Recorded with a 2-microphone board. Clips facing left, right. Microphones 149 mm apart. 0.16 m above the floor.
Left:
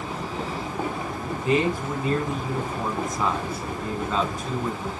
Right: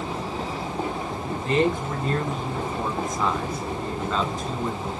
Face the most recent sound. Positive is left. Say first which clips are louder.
# even
turn(degrees=5)  # may be behind; listen again after turning